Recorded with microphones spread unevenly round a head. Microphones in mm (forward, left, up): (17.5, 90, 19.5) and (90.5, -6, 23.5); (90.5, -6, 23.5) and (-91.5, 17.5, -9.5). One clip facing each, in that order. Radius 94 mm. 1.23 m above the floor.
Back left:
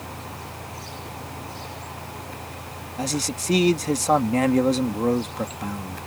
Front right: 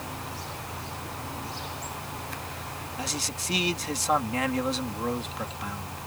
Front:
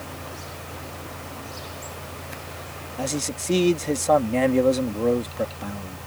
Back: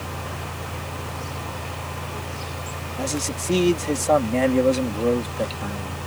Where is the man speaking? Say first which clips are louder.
Back left 9 dB, even; 85° left.